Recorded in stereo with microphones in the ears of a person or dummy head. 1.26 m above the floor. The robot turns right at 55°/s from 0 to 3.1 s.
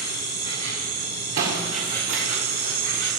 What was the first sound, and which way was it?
An insect, 130° left.